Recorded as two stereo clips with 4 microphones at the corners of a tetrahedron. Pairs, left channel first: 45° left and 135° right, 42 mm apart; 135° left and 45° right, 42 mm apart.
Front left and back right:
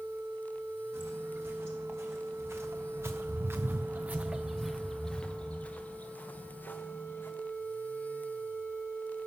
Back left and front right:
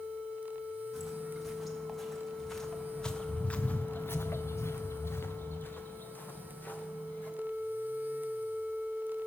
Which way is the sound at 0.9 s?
130° right.